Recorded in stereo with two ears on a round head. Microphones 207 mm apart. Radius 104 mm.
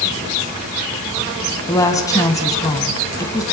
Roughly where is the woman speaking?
Centre.